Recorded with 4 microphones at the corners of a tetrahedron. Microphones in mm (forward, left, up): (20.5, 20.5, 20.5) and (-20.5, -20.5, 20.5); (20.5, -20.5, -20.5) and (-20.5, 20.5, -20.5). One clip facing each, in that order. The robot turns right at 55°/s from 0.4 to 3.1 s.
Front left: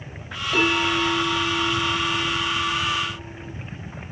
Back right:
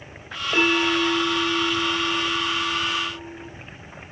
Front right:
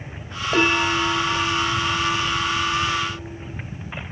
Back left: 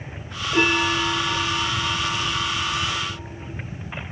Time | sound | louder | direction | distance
0.5 | a bell | back right 1 dB, front right 1 dB | 60° right | 9 m